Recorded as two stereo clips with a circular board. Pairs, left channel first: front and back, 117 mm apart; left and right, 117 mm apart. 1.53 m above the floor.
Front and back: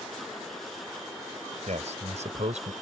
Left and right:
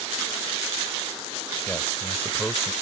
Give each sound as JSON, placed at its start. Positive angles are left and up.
{"t": 1.7, "sound": "a man speaking", "azimuth_deg": 170}